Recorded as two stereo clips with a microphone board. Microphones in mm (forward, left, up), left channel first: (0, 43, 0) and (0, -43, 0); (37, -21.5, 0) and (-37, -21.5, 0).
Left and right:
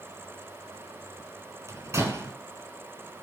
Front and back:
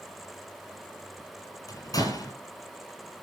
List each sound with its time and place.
1.7 s a door slam: 30° right, 4 m